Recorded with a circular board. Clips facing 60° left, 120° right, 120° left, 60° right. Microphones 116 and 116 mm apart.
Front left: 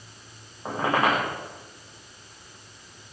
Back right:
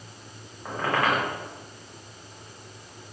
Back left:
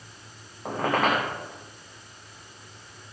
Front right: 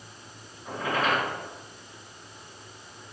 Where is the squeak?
125° left, 7 m.